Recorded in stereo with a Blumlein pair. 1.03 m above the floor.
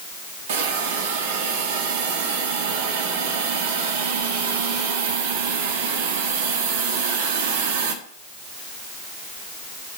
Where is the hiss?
55° right, 1.7 m.